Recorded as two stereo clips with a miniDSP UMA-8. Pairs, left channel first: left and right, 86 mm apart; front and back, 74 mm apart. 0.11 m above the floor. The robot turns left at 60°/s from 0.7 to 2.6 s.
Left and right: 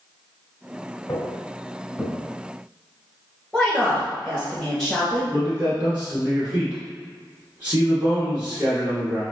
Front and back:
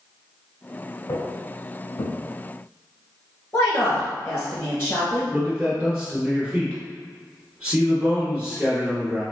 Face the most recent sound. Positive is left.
turn(degrees=-110)